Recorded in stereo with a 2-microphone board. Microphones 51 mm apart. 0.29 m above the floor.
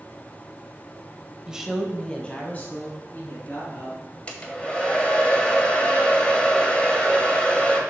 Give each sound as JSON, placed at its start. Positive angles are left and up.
{"t": 1.5, "sound": "a woman speaking", "side_deg": -20, "distance_m": 1.0}
{"t": 4.3, "sound": "a hair dryer", "side_deg": 25, "distance_m": 1.2}